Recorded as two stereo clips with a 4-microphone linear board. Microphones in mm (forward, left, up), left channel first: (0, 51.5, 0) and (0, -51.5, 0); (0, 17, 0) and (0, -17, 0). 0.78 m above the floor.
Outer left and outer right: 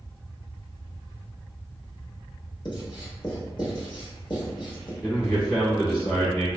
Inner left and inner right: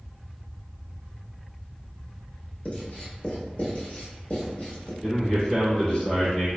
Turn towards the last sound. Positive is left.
turn(degrees=15)  # may be behind; listen again after turning